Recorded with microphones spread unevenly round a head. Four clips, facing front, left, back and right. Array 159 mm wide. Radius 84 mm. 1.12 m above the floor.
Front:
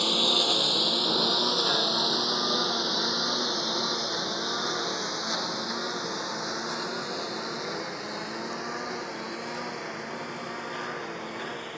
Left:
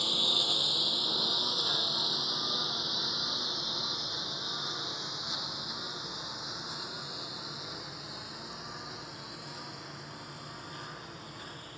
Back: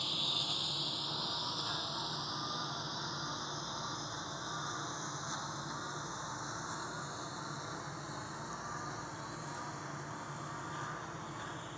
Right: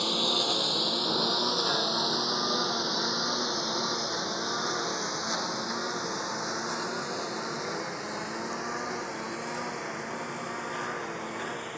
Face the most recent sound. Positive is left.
turn(degrees=-45)